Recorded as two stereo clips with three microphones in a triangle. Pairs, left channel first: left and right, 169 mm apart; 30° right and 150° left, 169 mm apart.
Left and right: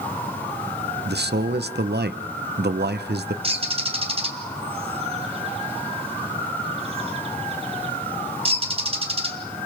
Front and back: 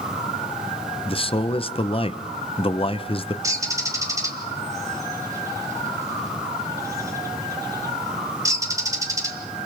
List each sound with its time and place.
1.1 s a man speaking: 90° right, 0.8 m
3.4 s a bird: 140° right, 2 m